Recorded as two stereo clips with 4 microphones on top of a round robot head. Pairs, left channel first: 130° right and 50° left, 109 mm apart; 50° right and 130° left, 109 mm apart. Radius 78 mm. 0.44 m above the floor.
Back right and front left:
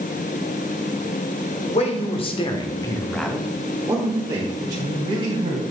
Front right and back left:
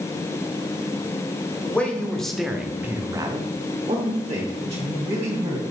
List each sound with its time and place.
1.6 s a man speaking: 125° right, 2 m; by 5.6 s 85° left, 3 m